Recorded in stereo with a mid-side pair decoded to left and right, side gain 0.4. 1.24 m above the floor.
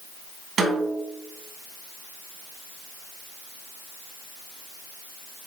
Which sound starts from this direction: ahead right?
A snare drum, at 0.6 s.